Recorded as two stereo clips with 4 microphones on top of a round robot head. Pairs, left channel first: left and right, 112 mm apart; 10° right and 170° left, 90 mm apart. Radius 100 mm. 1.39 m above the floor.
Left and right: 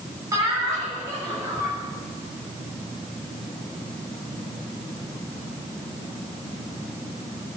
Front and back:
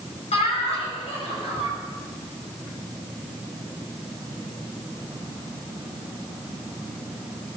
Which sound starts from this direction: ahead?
Laughter, at 0.3 s.